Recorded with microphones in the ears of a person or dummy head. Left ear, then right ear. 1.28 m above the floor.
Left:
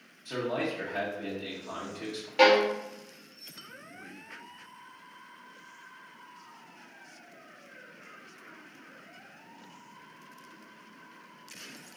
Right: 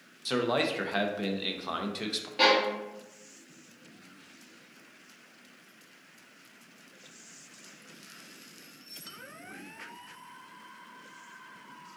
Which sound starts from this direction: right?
A man speaking, at 0.2 s.